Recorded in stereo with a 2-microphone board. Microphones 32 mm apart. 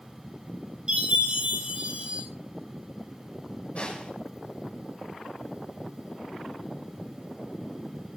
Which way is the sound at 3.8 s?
35° left (ahead or behind).